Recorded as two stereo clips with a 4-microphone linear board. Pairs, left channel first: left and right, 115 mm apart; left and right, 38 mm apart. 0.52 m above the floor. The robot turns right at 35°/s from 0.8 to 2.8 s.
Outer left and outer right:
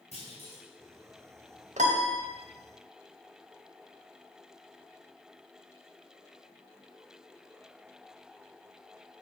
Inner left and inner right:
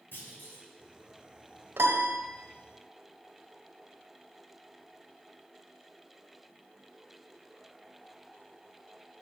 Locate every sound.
0.1 s a clunk: 65° left (ahead or behind), 3 m
1.8 s a piano: 85° right, 0.8 m; by 2.2 s 75° right (ahead or behind), 0.8 m